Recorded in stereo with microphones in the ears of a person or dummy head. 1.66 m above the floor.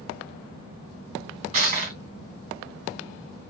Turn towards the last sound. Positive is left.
turn(degrees=-30)  # may be behind; listen again after turning